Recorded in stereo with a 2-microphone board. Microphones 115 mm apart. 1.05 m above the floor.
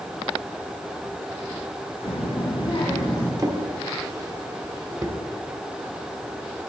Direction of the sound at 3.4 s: 30° right (ahead or behind).